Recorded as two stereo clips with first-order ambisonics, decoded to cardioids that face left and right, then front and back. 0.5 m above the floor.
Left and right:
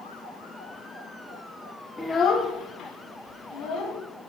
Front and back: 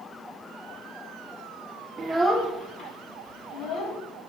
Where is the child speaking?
165° left, 0.5 m; by 4.0 s 40° left, 1.8 m.